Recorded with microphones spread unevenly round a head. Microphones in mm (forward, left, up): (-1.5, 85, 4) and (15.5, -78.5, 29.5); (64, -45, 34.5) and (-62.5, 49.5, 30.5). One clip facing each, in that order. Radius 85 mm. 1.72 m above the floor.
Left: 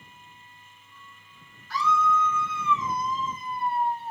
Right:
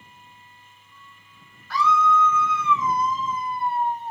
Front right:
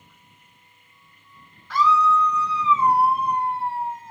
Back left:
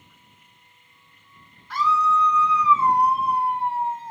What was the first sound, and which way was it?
A scream, 60° right.